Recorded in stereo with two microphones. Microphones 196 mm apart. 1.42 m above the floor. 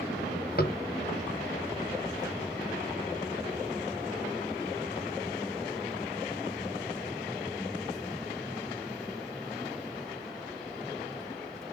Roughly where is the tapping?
Left.